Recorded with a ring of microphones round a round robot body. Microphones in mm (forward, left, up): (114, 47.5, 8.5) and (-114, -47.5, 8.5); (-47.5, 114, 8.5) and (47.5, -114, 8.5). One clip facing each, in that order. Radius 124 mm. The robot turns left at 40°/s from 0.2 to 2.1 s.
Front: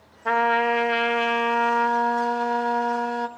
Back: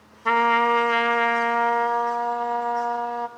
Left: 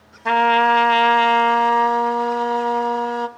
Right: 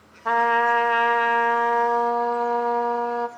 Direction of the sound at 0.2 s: 135° left.